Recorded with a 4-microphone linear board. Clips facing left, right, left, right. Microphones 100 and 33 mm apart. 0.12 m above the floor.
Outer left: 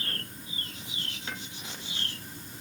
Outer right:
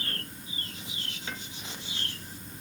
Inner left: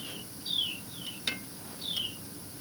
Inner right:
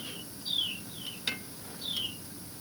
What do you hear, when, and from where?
Only background noise.